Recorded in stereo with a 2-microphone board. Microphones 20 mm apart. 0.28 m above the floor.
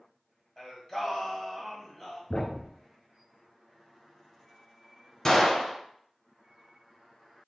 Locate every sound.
0.6 s singing: 20° left (ahead or behind), 1.7 m
2.3 s a thud: 50° left (ahead or behind), 1.5 m
5.2 s a gunshot: 30° left (ahead or behind), 1.0 m